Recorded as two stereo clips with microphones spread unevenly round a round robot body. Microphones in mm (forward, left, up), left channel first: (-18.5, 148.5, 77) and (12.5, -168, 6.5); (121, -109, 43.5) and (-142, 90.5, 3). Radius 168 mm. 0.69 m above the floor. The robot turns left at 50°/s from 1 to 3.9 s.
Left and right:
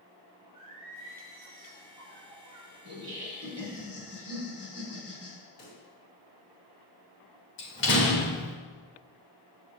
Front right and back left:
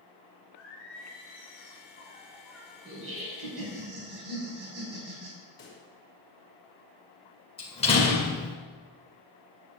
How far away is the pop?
About 3 m.